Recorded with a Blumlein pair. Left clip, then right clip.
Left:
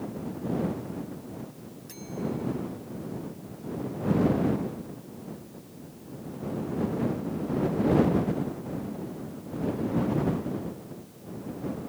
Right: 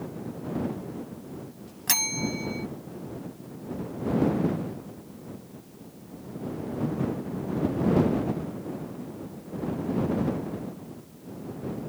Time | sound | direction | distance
1.9 | a bell | 50° right | ?